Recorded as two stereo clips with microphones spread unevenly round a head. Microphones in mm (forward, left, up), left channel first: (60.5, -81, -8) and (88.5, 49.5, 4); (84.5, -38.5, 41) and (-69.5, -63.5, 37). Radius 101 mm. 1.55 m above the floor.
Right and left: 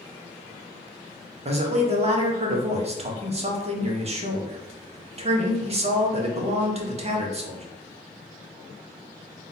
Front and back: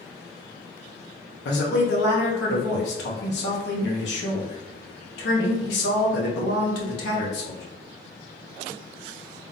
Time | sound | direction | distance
1.4 | a man speaking | 35° left | 1.2 m